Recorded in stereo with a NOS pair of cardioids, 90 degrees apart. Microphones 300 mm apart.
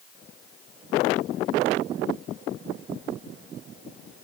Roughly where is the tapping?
No tapping in this recording.